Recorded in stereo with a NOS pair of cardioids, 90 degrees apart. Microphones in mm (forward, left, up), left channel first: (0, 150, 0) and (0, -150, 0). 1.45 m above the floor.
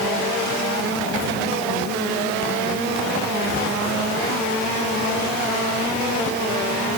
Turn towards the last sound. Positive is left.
No sound to turn to.